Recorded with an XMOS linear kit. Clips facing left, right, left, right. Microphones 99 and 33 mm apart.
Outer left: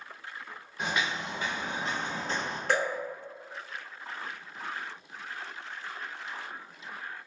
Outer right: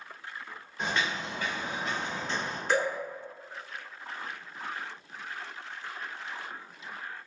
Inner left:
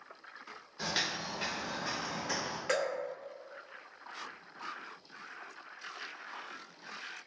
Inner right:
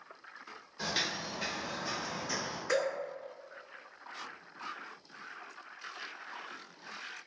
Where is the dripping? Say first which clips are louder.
Outer right 1 dB, inner right 1 dB; 55° left (ahead or behind), 1.6 m.